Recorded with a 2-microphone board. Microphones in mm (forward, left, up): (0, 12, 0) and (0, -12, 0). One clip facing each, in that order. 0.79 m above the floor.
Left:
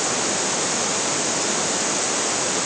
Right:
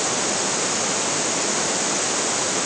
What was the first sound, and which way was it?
Only background noise.